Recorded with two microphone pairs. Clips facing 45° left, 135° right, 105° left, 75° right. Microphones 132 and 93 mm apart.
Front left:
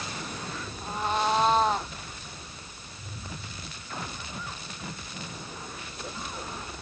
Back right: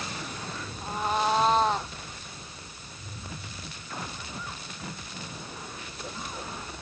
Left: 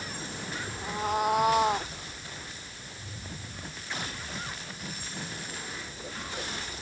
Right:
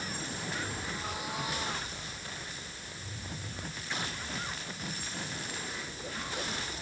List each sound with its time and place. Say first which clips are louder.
0.8 s a cat meowing: even, left 10 dB; 140° left; by 1.9 s 130° left